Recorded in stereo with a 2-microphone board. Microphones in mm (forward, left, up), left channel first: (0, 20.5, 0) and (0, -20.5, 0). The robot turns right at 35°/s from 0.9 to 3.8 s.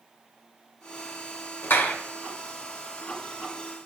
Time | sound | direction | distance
1.6 | a clap | 80° left | 1.8 m